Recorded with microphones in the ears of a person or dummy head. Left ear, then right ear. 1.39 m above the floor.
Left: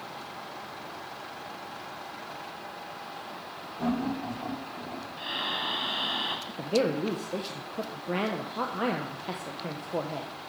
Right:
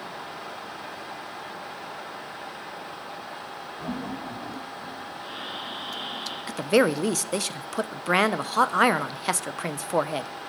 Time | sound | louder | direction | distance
3.8 | laughter | left 4 dB | 75° left (ahead or behind) | 5.5 m
5.2 | breathing | left 7 dB | 55° left (ahead or behind) | 1.9 m
6.5 | a woman speaking | right 9 dB | 60° right (ahead or behind) | 0.5 m